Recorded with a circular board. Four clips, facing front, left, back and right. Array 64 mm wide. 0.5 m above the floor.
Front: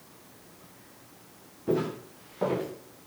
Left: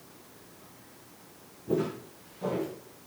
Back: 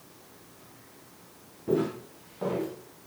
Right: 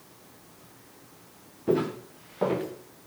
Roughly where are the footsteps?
Right.